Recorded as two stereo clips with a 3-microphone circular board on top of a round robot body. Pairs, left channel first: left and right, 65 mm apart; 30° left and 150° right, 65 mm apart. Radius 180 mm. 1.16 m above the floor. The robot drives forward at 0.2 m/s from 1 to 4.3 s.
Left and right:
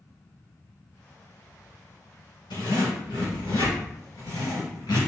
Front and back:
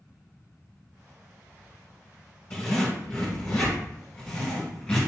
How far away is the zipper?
About 1.9 m.